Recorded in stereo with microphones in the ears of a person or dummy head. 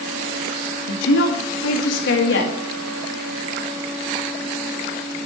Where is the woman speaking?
75° left (ahead or behind), 1.8 m.